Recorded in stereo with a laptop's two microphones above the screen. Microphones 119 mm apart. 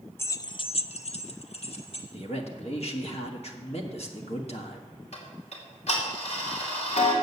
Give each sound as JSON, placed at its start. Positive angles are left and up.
{"t": 0.2, "sound": "keys jangling", "side_deg": 20, "distance_m": 0.5}
{"t": 2.1, "sound": "a man speaking", "side_deg": 60, "distance_m": 1.3}
{"t": 5.1, "sound": "ticking", "side_deg": 65, "distance_m": 2.5}